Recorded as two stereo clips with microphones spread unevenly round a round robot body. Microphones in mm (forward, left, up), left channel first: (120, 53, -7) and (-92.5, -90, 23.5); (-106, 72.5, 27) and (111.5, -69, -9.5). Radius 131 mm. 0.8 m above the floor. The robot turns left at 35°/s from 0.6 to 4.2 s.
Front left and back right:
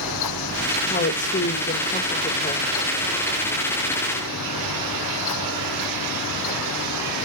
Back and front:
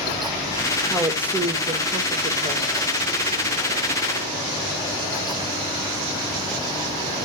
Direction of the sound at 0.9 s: 50° left.